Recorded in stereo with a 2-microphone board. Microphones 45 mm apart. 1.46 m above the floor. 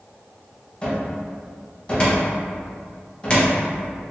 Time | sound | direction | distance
0.8 | a cupboard door | 25° left (ahead or behind) | 0.8 m